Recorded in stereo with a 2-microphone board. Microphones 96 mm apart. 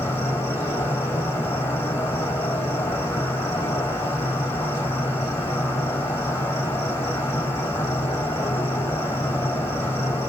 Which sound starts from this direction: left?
An insect, at 0.0 s.